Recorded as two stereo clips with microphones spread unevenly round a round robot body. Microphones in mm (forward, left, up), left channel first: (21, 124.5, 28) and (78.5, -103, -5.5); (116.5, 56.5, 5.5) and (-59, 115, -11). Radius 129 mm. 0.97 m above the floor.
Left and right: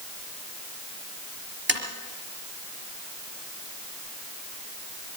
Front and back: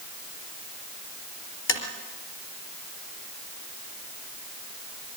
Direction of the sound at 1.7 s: 30° right.